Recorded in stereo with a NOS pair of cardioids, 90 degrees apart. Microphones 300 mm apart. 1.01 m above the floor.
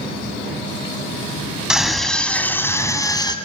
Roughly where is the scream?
Ahead.